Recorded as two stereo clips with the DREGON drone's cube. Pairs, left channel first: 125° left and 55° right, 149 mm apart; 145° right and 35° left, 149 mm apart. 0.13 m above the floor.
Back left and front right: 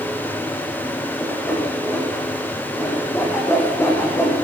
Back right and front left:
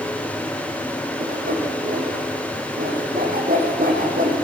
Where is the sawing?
50° left, 9 m.